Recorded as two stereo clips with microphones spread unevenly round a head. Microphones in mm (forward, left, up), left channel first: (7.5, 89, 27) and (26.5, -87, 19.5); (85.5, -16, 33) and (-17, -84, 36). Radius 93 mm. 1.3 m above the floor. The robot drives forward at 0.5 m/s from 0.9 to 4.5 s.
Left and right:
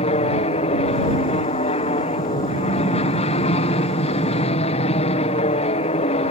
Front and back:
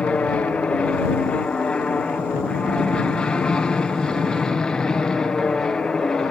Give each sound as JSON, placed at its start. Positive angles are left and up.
{"t": 0.0, "sound": "an aircraft", "azimuth_deg": 105}